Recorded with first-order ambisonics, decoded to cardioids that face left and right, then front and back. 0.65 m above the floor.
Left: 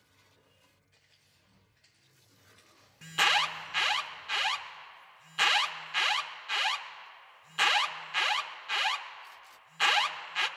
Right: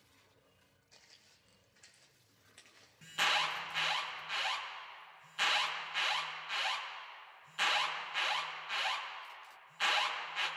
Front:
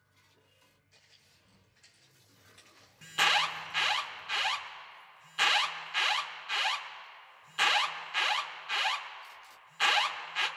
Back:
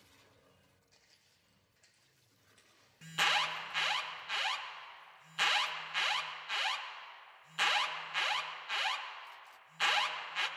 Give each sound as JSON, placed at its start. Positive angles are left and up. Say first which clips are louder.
{"t": 0.9, "sound": "footsteps", "louder": "right 4 dB, front 5 dB", "azimuth_deg": -100, "distance_m": 1.8}
{"t": 3.0, "sound": "an alarm", "louder": "left 6 dB, front 4 dB", "azimuth_deg": 75, "distance_m": 0.8}